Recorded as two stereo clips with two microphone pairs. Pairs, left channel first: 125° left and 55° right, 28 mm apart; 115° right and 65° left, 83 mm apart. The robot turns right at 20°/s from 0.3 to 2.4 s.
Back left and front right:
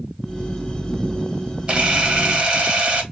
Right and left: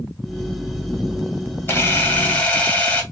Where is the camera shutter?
75° right, 1.2 m; by 3.0 s 60° right, 1.2 m.